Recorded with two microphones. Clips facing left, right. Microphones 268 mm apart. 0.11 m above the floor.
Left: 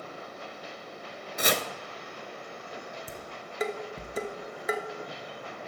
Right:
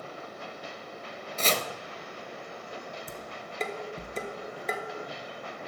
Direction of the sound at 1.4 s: 15° left (ahead or behind).